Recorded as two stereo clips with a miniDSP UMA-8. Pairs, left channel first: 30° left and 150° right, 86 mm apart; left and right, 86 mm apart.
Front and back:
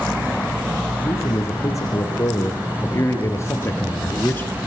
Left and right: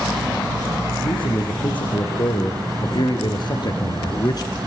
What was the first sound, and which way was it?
A man speaking, 80° left.